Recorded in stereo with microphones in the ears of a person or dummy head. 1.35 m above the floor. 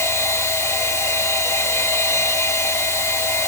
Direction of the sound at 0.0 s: 10° left (ahead or behind).